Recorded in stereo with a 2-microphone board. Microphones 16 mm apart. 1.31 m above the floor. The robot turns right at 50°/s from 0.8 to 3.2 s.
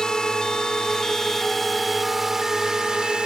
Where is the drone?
125° left; by 3.3 s 115° right.